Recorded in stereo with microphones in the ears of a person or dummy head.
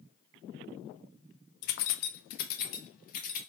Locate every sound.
1.6 s keys jangling: 50° left (ahead or behind), 0.6 m